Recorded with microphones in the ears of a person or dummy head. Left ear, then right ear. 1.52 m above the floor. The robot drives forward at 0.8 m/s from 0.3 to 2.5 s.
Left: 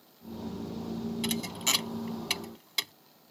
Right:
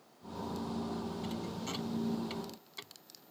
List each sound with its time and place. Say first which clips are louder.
1.2 s a thud: left 10 dB; 80° left; by 2.9 s 85° left